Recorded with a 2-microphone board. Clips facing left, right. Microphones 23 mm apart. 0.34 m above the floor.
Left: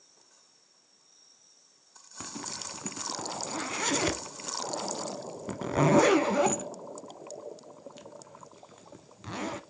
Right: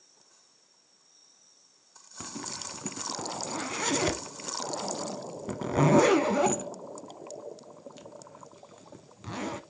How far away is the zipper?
About 0.6 m.